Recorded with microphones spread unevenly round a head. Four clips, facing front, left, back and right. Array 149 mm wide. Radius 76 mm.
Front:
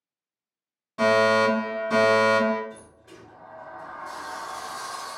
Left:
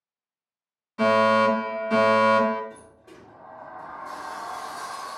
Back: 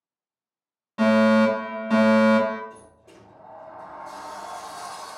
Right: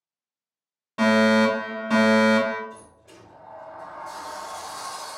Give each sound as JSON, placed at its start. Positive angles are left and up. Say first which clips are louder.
{"t": 1.0, "sound": "a fire alarm", "louder": "even, back 2 dB", "azimuth_deg": -110, "distance_m": 1.8}
{"t": 2.7, "sound": "a sliding door", "louder": "right 1 dB, front 1 dB", "azimuth_deg": 125, "distance_m": 1.8}